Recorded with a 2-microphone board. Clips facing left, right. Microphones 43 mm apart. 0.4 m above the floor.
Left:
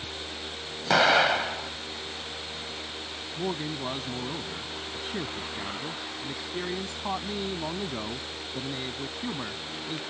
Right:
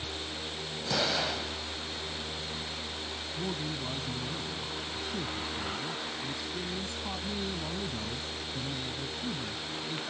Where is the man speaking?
40° left (ahead or behind).